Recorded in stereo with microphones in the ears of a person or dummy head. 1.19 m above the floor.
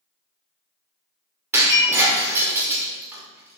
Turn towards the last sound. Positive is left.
turn(degrees=-10)  # may be behind; listen again after turning